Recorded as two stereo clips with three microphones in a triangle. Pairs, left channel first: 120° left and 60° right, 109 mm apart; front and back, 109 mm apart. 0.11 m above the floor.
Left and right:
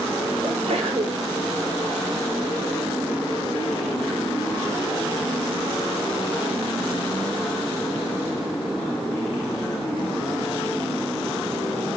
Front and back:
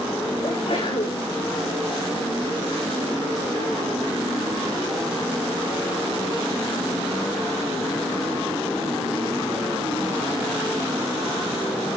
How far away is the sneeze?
About 7 m.